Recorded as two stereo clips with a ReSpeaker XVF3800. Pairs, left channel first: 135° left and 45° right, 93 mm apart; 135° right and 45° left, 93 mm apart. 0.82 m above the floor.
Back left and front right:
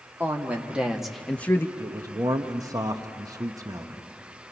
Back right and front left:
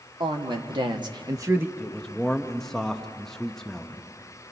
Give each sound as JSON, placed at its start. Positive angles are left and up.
{"t": 0.2, "sound": "a woman speaking", "azimuth_deg": 25, "distance_m": 2.0}
{"t": 1.8, "sound": "a man speaking", "azimuth_deg": -50, "distance_m": 1.1}